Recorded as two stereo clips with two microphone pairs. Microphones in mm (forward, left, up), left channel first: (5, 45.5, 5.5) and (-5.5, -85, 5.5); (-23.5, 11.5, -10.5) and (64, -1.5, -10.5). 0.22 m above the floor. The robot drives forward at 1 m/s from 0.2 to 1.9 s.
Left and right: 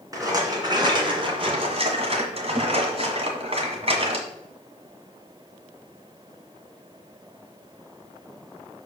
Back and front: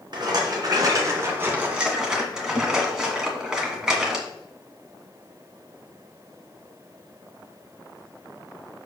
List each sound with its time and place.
0.1 s a rattle: 35° right, 2.5 m; by 4.2 s 85° right, 1.6 m